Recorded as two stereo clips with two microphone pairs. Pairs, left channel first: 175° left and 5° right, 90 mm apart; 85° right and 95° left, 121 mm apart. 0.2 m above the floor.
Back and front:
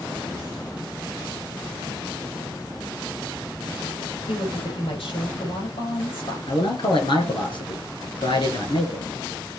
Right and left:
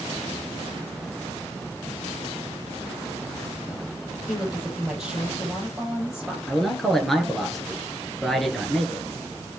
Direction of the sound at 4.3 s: Straight behind.